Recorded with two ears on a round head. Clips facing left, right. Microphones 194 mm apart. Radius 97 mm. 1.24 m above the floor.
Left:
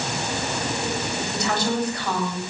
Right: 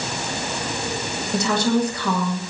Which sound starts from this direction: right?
A woman speaking, at 1.3 s.